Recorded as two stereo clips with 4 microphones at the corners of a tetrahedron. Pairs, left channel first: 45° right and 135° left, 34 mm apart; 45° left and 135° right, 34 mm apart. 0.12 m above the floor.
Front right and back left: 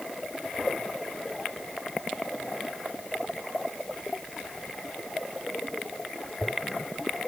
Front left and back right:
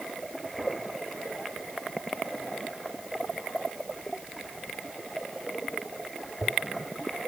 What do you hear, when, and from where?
Only background noise.